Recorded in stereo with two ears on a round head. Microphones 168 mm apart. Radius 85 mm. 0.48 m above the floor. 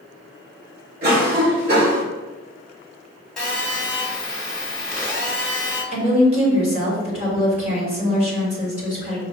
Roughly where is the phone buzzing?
Centre.